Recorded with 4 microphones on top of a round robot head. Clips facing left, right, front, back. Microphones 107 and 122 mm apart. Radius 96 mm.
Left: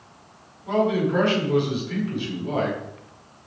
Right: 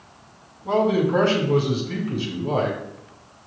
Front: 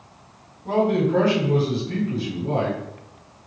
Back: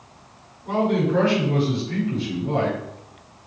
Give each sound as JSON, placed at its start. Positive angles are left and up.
{"t": 0.7, "sound": "a man speaking", "azimuth_deg": -45, "distance_m": 5.5}